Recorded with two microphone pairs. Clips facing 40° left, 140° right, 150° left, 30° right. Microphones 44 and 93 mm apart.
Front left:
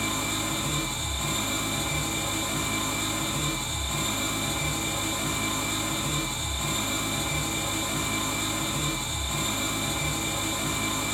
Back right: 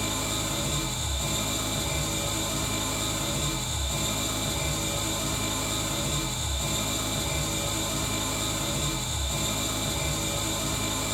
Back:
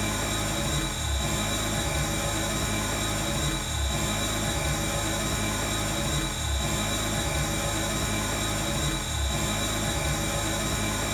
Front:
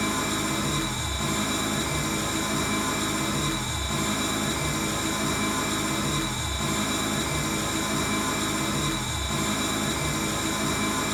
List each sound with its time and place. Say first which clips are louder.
0.0 s an engine running: front left 2 dB, front 3 dB; 15° right, 1.2 m